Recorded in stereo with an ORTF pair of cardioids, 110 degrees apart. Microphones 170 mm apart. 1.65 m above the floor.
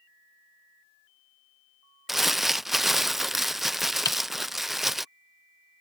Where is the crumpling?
Straight ahead.